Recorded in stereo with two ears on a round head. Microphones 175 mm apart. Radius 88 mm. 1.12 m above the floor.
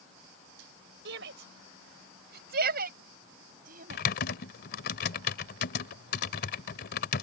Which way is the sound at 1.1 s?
65° right (ahead or behind).